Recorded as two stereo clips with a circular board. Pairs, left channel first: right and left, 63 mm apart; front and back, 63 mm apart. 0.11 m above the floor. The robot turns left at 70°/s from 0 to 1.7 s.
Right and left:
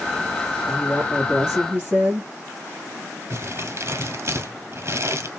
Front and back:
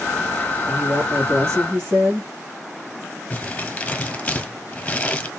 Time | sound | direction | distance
0.7 | a woman speaking | 150° right | 2.5 m
3.3 | crumpling | 65° left | 1.4 m